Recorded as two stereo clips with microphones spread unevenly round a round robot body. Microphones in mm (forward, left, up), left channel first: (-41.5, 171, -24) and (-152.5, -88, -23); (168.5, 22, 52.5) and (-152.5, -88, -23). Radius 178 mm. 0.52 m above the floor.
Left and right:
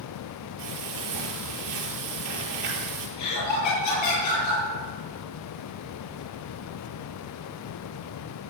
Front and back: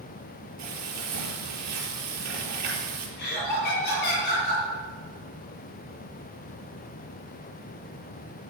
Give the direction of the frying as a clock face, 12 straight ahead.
4 o'clock.